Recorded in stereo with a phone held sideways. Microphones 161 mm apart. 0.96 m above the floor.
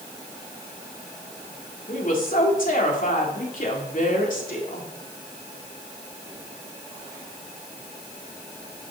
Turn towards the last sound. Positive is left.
turn(degrees=60)  # may be behind; listen again after turning